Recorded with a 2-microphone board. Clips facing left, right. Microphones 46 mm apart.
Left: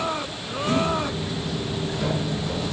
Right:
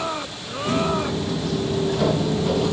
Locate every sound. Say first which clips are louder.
0.7 s footsteps: right 1 dB; 60° right (ahead or behind), 3 m; by 2.7 s 65° right (ahead or behind), 2 m